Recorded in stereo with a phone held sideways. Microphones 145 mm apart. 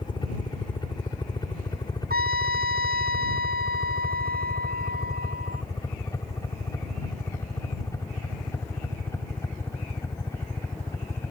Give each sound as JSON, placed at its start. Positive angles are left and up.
{"t": 0.0, "sound": "a helicopter", "side_deg": 30}
{"t": 2.1, "sound": "a trumpet", "side_deg": -90}